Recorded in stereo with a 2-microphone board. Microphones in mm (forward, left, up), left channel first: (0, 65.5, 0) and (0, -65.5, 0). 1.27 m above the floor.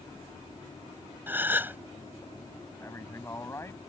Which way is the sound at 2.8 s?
20° left (ahead or behind).